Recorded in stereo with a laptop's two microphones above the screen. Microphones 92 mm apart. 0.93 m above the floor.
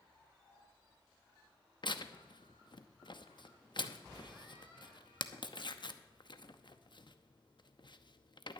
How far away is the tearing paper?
About 0.8 m.